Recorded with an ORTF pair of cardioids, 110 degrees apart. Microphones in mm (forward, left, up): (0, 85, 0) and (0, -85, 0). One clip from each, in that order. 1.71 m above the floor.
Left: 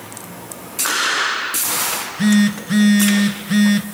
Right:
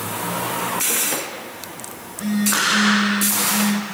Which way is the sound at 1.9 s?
65° left.